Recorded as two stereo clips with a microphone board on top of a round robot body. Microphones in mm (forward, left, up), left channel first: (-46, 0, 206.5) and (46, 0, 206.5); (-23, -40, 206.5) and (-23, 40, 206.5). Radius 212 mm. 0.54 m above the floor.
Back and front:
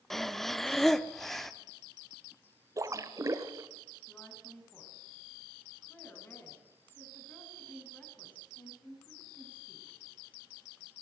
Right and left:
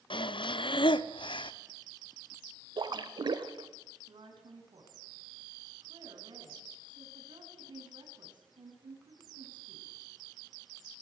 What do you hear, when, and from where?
0.1 s breathing: 95° right, 0.8 m
2.8 s a splash: 55° left, 1.2 m
4.1 s a woman speaking: 110° left, 6.5 m